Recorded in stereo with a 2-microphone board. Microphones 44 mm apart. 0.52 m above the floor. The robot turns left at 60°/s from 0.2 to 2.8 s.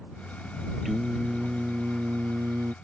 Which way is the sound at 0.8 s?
Straight ahead.